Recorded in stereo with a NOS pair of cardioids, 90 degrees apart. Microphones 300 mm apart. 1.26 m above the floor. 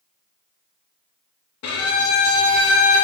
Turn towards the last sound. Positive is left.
turn(degrees=60)